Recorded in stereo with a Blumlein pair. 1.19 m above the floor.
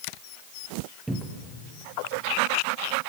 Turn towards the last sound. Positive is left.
turn(degrees=-10)